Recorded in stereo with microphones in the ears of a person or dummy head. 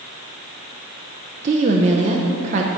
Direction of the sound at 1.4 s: 40° right (ahead or behind).